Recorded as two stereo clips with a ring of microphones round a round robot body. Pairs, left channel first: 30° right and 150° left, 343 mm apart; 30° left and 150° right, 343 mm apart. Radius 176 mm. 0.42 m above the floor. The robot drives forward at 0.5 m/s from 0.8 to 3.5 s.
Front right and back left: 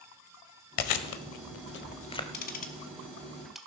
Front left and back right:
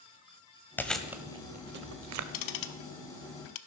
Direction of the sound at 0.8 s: 55° right.